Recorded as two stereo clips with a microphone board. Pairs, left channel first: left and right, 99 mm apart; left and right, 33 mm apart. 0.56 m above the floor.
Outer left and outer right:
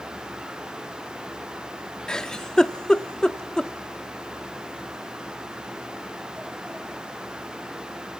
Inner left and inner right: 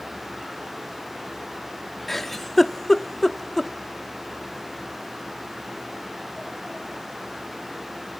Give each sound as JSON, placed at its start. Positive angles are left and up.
{"t": 2.1, "sound": "a giggle", "side_deg": 5, "distance_m": 0.7}